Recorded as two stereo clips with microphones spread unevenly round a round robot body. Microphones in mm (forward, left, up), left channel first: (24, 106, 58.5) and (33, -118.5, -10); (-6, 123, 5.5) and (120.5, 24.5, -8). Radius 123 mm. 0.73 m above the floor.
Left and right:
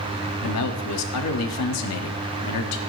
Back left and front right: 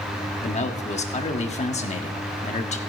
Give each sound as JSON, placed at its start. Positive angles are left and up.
{"t": 0.4, "sound": "a man speaking", "azimuth_deg": 100, "distance_m": 1.6}